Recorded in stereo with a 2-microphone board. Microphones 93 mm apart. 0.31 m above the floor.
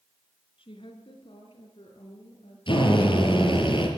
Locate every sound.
0.6 s a woman speaking: 70° left (ahead or behind), 4 m; by 2.6 s 80° left, 6 m
2.7 s a drill: 65° left (ahead or behind), 5.5 m